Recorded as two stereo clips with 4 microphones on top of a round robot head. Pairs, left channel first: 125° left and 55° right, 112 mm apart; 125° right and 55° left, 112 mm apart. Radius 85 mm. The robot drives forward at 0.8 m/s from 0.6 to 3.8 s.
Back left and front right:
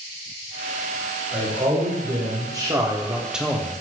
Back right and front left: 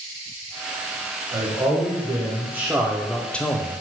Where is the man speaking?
5° right, 1.8 m; by 3.7 s 160° right, 0.8 m.